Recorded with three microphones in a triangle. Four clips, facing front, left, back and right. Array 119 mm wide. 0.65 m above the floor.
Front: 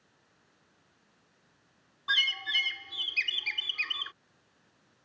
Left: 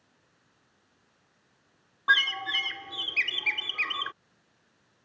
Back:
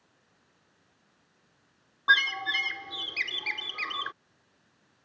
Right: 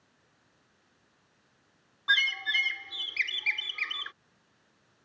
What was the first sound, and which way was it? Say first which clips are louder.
A bird: left 3 dB, back 8 dB; 140° left.